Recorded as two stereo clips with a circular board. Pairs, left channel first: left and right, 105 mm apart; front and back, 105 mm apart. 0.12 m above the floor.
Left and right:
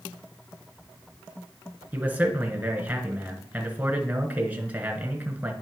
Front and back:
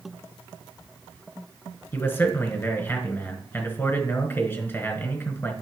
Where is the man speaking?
35° right, 1.3 m.